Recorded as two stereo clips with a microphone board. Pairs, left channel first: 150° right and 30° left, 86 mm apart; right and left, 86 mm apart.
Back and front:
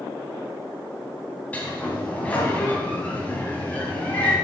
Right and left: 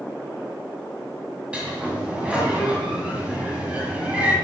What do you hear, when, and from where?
1.5 s a sliding door: 155° left, 1.7 m